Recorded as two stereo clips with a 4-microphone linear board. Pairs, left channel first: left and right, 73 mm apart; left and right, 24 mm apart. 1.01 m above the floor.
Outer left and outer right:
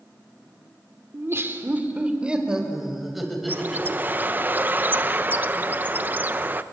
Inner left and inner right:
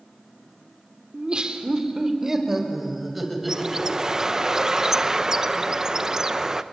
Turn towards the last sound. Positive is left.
turn(degrees=-25)  # may be behind; listen again after turning